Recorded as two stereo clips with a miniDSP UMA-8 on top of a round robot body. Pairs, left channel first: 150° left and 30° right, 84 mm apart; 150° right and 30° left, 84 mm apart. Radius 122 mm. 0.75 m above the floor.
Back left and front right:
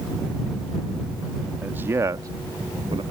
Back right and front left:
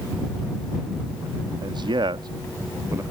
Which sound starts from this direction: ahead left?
A man speaking, at 1.6 s.